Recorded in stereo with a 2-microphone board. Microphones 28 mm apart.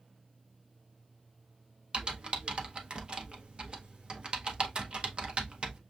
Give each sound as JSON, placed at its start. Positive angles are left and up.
{"t": 1.9, "sound": "typing on a keyboard", "side_deg": -35, "distance_m": 0.7}